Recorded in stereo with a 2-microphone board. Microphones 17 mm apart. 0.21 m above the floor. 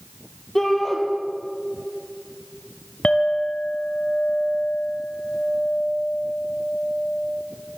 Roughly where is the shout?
Centre.